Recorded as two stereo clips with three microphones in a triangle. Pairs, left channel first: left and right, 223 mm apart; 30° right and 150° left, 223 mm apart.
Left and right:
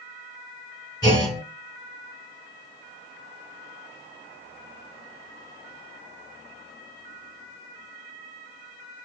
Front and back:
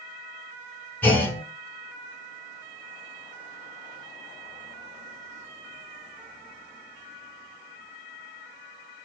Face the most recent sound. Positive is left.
turn(degrees=45)